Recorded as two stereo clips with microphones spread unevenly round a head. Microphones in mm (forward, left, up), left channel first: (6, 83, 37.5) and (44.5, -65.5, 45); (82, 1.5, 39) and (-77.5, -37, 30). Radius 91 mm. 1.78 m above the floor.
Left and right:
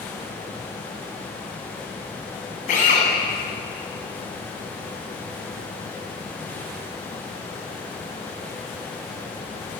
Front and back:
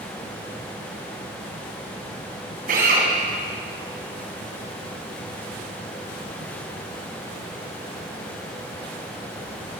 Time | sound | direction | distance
2.7 | a drill | 150° left | 8 m